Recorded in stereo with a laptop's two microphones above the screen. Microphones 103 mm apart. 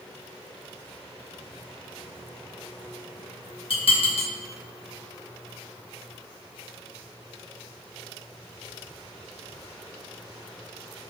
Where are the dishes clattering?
65° left (ahead or behind), 0.8 m.